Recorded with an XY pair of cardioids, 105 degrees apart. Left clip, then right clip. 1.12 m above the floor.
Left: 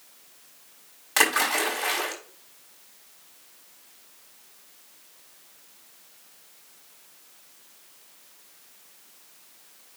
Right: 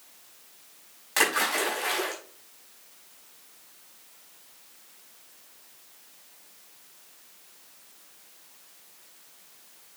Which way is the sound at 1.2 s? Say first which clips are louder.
Left 2 dB; 25° left.